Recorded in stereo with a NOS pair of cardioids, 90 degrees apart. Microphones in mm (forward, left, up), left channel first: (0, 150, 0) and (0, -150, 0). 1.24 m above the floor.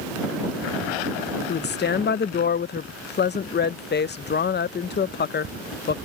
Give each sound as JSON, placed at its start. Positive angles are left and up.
{"t": 1.5, "sound": "a woman speaking", "azimuth_deg": 35}